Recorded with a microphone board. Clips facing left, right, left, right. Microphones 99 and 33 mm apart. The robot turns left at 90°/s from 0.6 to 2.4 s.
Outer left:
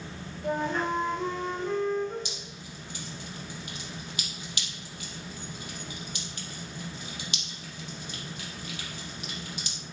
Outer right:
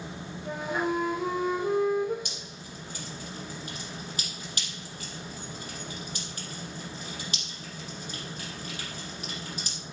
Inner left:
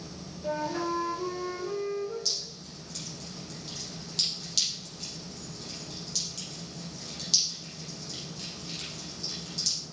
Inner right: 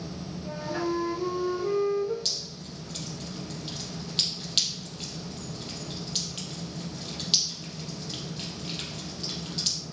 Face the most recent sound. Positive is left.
turn(degrees=-40)  # may be behind; listen again after turning